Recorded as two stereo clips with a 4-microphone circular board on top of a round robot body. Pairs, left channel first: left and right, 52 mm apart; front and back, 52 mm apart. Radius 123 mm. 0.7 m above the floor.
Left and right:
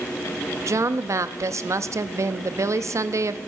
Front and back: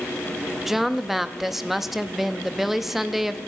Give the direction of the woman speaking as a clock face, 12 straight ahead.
3 o'clock.